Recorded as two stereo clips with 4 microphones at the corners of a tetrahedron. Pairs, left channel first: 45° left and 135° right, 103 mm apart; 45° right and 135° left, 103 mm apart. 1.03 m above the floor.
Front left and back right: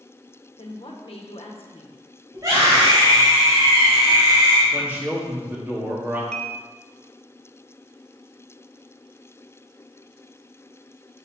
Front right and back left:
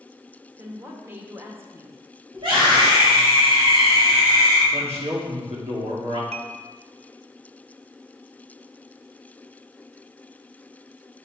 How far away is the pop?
No pop in this recording.